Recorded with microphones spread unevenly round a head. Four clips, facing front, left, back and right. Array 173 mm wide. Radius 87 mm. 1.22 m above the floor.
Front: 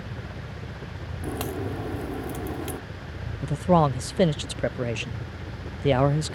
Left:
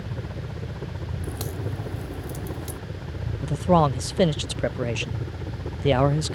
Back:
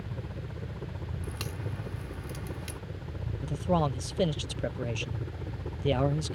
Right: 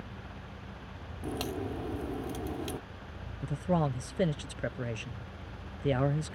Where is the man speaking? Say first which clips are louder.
Left 11 dB, front 8 dB; 50° left.